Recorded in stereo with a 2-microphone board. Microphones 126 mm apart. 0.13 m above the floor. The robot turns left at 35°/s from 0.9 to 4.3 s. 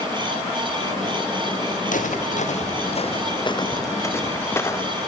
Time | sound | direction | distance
1.9 | footsteps | 80° left | 3 m